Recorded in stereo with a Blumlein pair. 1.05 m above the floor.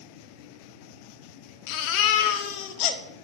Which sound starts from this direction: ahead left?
A baby crying, at 1.7 s.